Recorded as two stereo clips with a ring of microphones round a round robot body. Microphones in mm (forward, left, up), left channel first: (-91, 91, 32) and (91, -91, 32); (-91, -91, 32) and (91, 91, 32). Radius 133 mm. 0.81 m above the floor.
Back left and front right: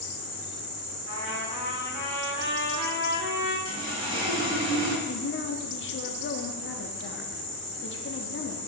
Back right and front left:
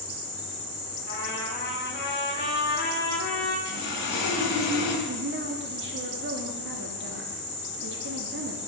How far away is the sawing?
About 4 m.